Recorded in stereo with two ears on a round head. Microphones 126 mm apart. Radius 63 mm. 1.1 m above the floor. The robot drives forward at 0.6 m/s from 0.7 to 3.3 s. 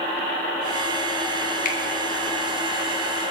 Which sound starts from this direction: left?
A finger snap, at 1.6 s.